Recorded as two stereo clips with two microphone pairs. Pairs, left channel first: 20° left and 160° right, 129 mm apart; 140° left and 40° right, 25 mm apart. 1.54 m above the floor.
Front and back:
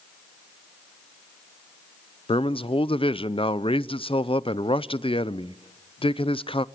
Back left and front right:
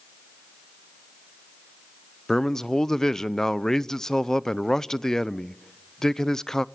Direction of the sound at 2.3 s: 65° left.